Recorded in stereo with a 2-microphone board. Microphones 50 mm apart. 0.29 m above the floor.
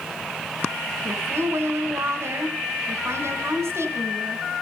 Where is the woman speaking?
60° right (ahead or behind), 3 m.